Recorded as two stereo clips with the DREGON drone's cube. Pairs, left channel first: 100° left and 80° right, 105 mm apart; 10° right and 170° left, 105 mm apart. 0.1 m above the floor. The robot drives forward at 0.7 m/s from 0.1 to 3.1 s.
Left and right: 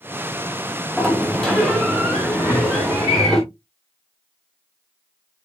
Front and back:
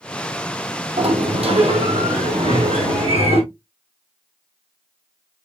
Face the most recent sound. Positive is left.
turn(degrees=165)